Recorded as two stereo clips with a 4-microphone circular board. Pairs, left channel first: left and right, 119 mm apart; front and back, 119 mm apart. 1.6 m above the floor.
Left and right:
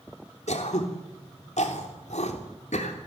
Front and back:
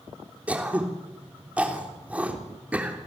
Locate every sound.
0.5 s throat clearing: 100° left, 3.5 m